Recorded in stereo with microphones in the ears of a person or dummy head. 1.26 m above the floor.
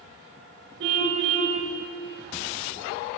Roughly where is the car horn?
Right.